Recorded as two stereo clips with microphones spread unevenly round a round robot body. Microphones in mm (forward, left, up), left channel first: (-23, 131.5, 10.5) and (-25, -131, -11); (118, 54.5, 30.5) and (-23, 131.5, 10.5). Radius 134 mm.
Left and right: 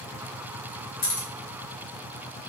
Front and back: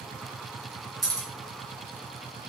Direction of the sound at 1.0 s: 105° left.